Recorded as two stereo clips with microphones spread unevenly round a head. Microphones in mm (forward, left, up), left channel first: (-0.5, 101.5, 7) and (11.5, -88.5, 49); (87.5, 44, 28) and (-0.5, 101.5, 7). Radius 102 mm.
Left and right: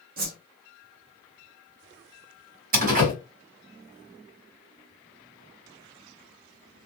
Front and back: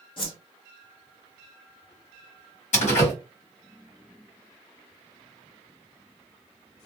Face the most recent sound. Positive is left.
turn(degrees=-40)